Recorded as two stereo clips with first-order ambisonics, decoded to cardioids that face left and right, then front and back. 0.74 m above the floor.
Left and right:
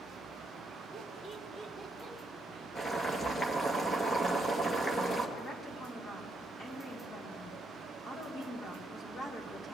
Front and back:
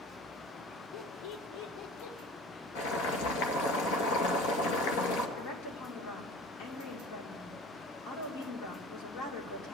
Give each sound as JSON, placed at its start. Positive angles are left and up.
{"t": 0.9, "sound": "laughter", "azimuth_deg": -10, "distance_m": 1.3}
{"t": 2.8, "sound": "boiling", "azimuth_deg": 10, "distance_m": 2.0}
{"t": 5.4, "sound": "a woman speaking", "azimuth_deg": 20, "distance_m": 2.5}